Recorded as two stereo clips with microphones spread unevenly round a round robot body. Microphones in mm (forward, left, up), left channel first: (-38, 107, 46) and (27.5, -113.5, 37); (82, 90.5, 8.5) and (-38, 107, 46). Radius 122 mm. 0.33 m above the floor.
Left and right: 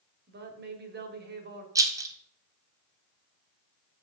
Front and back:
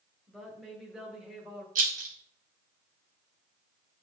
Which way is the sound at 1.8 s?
150° right.